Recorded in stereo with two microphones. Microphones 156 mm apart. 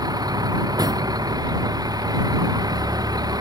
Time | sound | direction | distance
0.0 | a vehicle | 25° right (ahead or behind) | ?